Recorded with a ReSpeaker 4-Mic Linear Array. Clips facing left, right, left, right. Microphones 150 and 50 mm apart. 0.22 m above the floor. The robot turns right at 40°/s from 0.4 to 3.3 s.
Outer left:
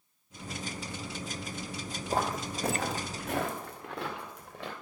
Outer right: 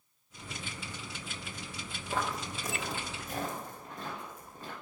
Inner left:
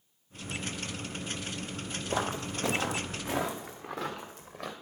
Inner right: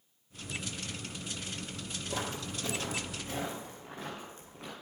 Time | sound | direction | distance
2.1 | footsteps | 35° left (ahead or behind) | 0.5 m